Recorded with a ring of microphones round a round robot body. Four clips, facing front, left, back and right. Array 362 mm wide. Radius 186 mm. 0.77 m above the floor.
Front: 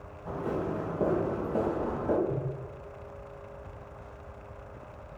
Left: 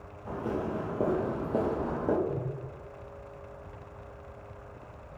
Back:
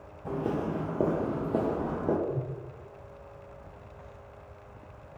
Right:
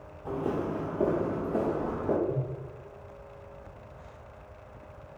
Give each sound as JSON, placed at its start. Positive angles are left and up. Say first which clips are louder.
{"t": 0.2, "sound": "footsteps", "louder": "right 2 dB, back 1 dB", "azimuth_deg": -160, "distance_m": 0.9}
{"t": 2.2, "sound": "a whoosh", "louder": "right 2 dB, even", "azimuth_deg": 90, "distance_m": 1.5}